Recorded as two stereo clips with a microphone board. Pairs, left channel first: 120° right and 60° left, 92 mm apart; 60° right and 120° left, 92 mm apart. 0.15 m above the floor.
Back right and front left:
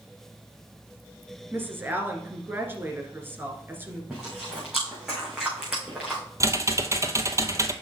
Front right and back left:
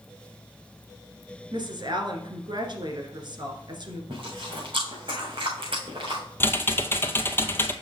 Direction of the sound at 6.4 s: 5° left.